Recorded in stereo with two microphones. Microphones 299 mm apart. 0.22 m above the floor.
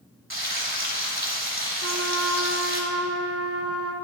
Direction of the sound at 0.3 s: 40° right (ahead or behind).